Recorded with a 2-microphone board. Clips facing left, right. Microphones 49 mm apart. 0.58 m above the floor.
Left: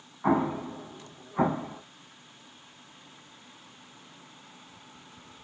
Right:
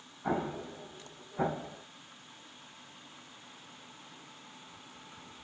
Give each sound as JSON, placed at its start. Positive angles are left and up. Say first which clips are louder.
{"t": 0.2, "sound": "an explosion", "louder": "left 8 dB", "side_deg": 75, "distance_m": 1.0}